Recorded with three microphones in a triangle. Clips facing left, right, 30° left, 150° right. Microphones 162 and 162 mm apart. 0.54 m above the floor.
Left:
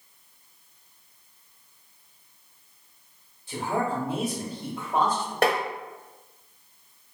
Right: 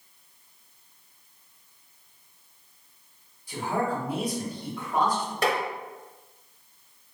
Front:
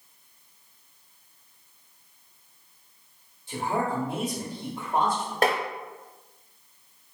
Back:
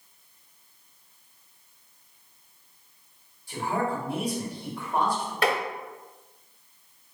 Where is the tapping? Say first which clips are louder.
Left 3 dB, front 2 dB; 70° left, 0.7 m.